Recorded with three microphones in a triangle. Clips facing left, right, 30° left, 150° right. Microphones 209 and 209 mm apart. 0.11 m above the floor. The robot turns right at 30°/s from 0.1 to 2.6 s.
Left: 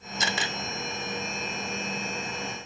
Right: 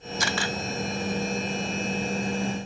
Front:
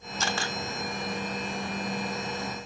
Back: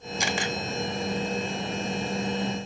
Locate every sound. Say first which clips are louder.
0.2 s a camera shutter: right 3 dB, back 3 dB; 140° left, 0.8 m; by 0.6 s 155° left, 0.8 m